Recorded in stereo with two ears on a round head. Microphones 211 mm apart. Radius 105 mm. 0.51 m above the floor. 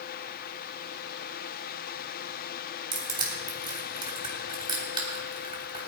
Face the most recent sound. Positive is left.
turn(degrees=-20)  # may be behind; listen again after turning